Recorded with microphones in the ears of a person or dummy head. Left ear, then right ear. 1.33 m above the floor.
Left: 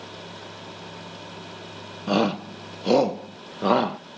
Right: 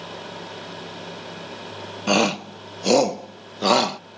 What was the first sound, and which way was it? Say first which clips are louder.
A shout: right 3 dB; 60° right (ahead or behind).